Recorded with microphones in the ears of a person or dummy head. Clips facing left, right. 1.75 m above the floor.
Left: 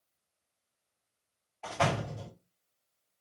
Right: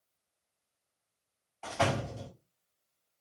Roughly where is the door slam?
Right.